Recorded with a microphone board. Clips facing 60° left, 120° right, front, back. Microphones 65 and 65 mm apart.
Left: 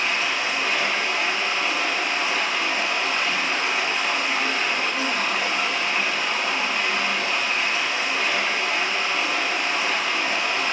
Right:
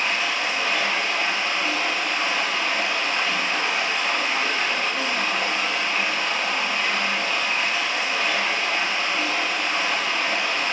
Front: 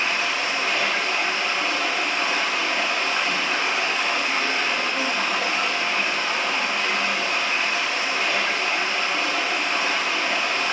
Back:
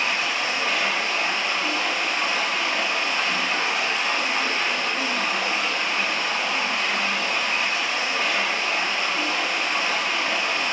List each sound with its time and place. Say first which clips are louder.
0.0 s running water: even, front 1 dB; 20° right, 1.2 m